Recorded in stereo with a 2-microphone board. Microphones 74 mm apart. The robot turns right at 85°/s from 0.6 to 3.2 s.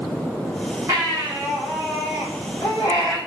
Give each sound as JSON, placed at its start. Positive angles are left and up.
{"t": 0.9, "sound": "a baby crying", "azimuth_deg": -50, "distance_m": 5.0}